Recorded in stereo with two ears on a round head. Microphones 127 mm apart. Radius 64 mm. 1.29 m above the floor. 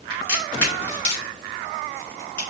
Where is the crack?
15° left (ahead or behind), 3 m.